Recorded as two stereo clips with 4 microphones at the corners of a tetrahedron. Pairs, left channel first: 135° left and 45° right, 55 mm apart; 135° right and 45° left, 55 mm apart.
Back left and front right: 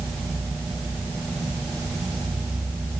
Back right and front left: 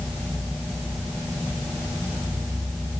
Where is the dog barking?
I don't hear a dog barking.